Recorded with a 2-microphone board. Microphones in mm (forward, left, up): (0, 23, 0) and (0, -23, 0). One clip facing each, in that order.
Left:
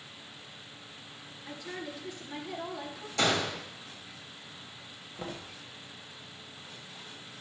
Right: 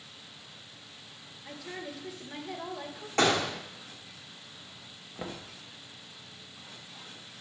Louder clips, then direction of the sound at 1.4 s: Even; 5° right (ahead or behind).